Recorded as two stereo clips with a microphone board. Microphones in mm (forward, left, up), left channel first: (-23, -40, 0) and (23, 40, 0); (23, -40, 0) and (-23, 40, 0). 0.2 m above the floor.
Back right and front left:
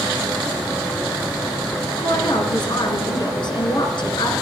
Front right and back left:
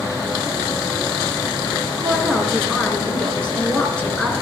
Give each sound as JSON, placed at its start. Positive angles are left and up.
{"t": 2.0, "sound": "a woman speaking", "azimuth_deg": -135, "distance_m": 3.0}